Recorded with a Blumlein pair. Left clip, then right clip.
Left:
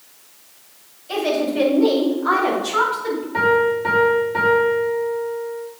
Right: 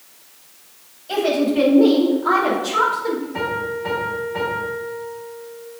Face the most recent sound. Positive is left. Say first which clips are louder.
# left 7 dB
turn(degrees=20)